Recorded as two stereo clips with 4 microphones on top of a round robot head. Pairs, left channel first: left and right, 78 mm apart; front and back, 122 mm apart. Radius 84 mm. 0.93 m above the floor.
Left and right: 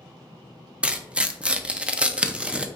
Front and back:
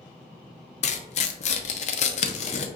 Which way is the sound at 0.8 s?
15° right.